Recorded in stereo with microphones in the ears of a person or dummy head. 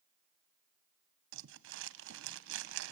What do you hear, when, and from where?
1.3 s crumpling: 70° right (ahead or behind), 1.1 m